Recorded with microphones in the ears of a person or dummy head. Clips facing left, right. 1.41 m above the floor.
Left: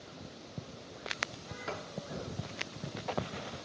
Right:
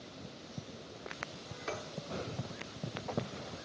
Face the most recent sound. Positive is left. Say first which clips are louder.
# even
turn(degrees=5)  # may be behind; listen again after turning